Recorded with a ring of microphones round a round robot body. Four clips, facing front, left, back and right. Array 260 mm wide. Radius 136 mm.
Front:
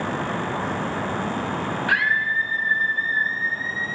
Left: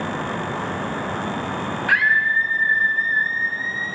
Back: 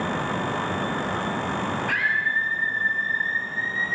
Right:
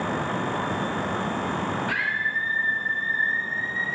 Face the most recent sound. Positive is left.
turn(degrees=60)